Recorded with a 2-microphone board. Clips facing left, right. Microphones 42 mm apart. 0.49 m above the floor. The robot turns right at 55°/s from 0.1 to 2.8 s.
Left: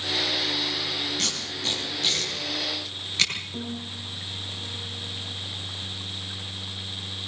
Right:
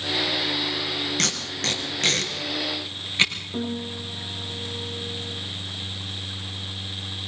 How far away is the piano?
About 4.5 m.